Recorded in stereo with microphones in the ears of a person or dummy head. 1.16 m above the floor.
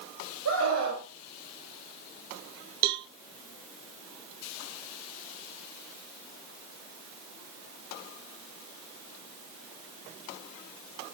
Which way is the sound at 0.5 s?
85° right.